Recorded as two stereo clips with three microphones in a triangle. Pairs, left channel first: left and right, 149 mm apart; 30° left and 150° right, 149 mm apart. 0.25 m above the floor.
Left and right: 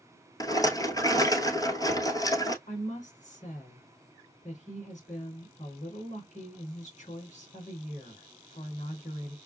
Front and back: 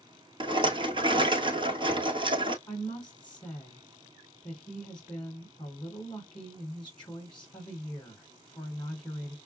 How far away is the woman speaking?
About 2.5 m.